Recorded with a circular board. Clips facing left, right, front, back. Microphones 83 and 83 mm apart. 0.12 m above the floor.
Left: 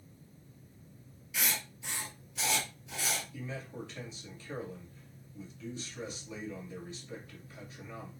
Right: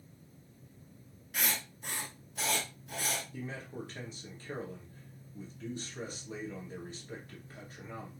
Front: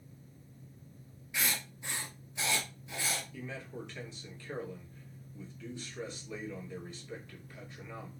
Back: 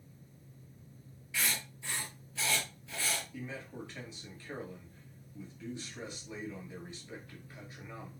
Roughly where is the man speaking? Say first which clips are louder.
Even, even; behind right.